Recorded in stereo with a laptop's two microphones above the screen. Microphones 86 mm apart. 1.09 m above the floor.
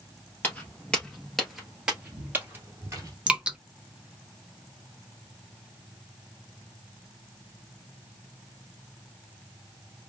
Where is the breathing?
I don't hear breathing.